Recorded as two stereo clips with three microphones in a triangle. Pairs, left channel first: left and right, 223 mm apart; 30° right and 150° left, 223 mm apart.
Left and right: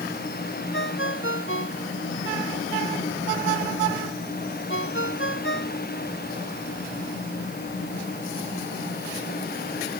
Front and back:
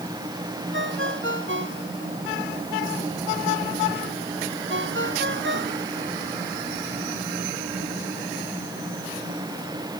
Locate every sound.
0.7 s a ringtone: 120° left